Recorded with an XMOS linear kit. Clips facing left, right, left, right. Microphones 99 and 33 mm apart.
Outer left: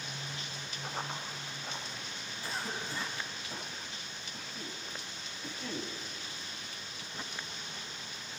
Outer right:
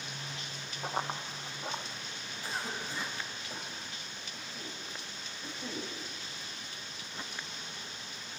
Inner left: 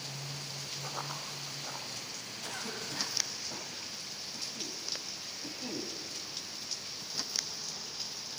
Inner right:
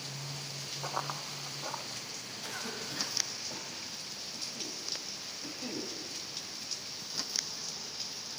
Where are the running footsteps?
45° right (ahead or behind), 2 m; by 1.8 s 55° right (ahead or behind), 2.5 m.